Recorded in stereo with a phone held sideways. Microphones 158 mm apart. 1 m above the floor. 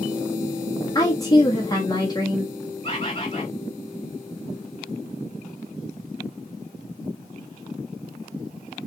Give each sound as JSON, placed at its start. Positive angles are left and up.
{"t": 0.9, "sound": "a woman speaking", "side_deg": 25, "distance_m": 1.1}
{"t": 2.8, "sound": "a bird", "side_deg": 35, "distance_m": 1.4}